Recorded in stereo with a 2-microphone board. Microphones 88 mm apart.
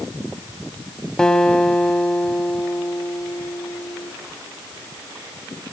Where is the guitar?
10° left (ahead or behind), 1.4 m.